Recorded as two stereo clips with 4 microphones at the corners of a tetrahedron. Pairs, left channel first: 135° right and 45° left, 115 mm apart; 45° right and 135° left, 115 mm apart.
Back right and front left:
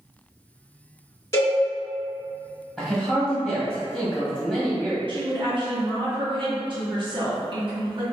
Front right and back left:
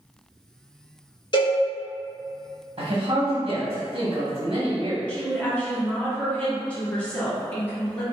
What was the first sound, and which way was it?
A cowbell, 75° right.